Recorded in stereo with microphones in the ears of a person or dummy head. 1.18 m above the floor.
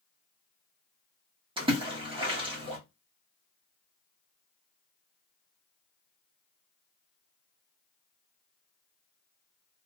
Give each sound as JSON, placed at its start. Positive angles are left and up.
{"t": 1.6, "sound": "a splash", "side_deg": -20, "distance_m": 0.8}